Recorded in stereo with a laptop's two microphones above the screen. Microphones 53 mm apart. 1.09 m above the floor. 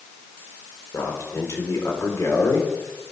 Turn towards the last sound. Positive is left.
turn(degrees=75)  # may be behind; listen again after turning